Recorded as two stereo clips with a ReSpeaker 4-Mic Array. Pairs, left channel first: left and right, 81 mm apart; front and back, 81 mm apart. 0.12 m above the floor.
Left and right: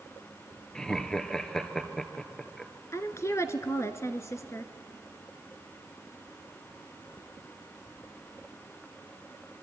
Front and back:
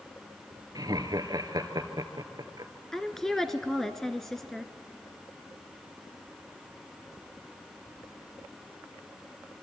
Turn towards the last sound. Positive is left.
turn(degrees=85)